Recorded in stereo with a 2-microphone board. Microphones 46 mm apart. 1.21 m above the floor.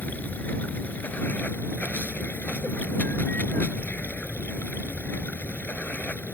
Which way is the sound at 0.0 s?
40° left (ahead or behind).